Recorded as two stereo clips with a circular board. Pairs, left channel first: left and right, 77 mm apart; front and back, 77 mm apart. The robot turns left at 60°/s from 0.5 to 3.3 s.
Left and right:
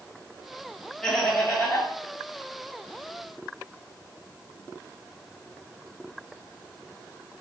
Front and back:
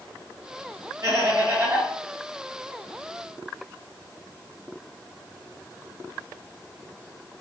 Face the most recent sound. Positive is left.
turn(degrees=35)